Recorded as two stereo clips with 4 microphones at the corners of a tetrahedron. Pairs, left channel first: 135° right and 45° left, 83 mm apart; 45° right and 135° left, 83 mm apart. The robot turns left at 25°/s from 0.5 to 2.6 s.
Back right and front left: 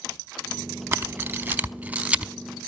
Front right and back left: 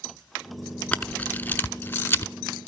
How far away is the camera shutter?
About 0.6 m.